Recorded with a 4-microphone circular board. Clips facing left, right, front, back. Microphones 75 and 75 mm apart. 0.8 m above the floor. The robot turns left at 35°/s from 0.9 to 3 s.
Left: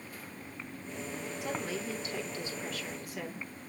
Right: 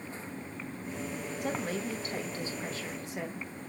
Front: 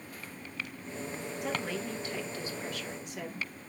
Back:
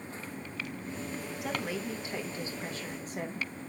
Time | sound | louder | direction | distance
1.4 | a woman speaking | right 3 dB, even | 95° right | 1.0 m